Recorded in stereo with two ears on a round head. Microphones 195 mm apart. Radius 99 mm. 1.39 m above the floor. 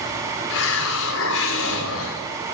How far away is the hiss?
About 5 m.